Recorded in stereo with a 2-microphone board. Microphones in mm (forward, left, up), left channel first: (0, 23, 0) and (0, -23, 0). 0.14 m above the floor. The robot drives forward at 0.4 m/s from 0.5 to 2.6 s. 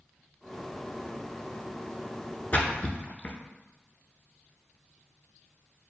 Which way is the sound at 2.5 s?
35° left (ahead or behind).